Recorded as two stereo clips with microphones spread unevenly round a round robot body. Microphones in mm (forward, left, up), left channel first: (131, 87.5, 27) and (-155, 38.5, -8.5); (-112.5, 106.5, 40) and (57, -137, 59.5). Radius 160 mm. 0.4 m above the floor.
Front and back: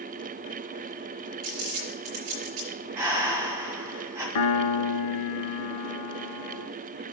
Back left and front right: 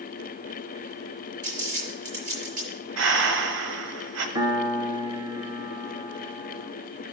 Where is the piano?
20° left, 1.0 m.